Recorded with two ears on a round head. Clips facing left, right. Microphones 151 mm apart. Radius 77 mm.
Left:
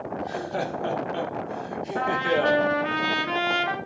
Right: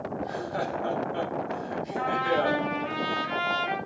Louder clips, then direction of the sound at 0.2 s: Left 3 dB; 30° left (ahead or behind).